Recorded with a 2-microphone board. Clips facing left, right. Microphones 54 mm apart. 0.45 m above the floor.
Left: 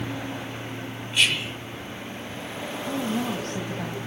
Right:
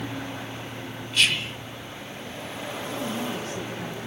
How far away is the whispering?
About 1.8 m.